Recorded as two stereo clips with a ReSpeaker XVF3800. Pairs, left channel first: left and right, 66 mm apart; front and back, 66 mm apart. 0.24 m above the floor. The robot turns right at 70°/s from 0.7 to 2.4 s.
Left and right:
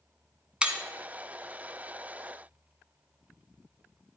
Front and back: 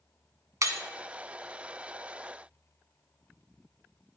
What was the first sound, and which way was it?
Breaking glass, 160° right.